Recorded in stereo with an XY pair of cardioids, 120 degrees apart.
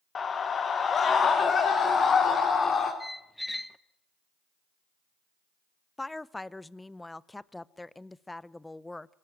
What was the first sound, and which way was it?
A scream, 35° left.